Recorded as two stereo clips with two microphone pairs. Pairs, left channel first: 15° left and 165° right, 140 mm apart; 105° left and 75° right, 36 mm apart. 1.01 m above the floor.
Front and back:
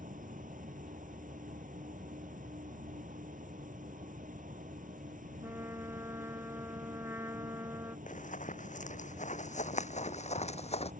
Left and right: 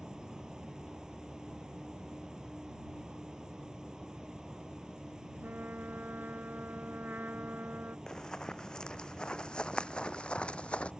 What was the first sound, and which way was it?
An insect, 145° right.